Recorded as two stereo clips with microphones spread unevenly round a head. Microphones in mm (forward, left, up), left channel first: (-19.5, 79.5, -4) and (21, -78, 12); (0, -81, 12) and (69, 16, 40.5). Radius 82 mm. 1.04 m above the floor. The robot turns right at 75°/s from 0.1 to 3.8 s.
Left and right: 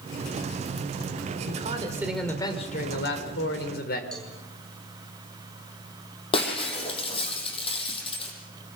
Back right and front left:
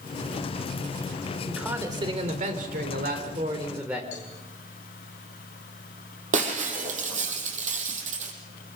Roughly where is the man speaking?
Ahead right.